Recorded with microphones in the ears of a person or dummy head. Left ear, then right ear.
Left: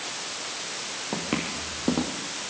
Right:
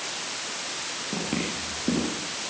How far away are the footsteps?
About 4 m.